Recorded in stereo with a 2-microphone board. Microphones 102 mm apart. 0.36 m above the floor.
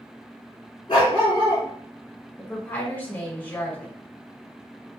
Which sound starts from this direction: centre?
A woman speaking, at 2.4 s.